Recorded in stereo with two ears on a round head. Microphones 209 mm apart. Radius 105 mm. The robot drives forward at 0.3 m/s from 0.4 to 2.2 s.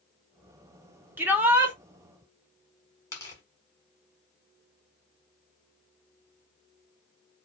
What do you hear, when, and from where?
1.2 s a shout: 10° right (ahead or behind), 0.9 m; by 1.8 s 5° right (ahead or behind), 1.1 m
3.1 s tearing paper: 15° left (ahead or behind), 1.5 m